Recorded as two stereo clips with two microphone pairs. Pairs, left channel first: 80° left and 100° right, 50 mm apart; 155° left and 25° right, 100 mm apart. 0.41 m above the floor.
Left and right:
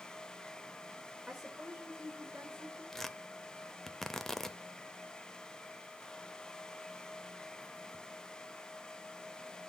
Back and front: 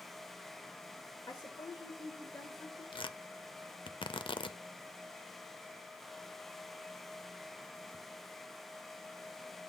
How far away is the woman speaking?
About 1.6 m.